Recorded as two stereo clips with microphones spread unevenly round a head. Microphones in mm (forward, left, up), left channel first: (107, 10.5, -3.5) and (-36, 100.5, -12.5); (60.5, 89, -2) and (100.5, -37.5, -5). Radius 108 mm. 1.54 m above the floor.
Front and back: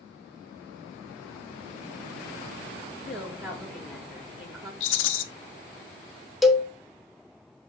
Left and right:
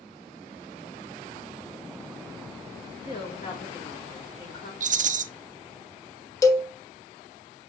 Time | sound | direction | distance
3.0 | a woman speaking | 55° left | 5 m
4.8 | a rattle | 45° right | 0.7 m
6.4 | a cowbell | 55° left | 1.1 m